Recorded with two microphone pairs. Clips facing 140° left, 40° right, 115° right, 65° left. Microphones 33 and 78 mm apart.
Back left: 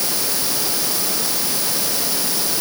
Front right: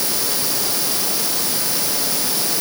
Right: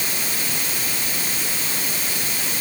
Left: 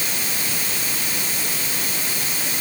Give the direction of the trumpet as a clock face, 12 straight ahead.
No trumpet in this recording.